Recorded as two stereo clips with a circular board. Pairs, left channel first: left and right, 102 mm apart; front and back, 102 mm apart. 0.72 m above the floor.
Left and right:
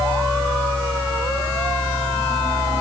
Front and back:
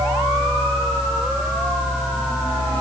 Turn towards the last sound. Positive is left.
No sound to turn to.